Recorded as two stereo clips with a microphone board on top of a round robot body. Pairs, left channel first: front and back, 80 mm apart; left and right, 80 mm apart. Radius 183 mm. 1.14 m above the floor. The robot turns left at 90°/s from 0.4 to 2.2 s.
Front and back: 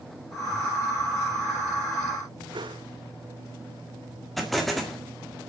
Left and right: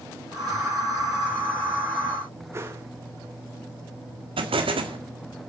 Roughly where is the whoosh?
Behind right.